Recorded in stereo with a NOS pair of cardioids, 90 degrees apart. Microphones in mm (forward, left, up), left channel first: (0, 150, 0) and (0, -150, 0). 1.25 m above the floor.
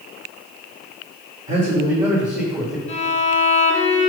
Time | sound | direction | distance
1.5 | a man speaking | 25° right | 2.0 m
2.9 | a violin | 20° left | 1.3 m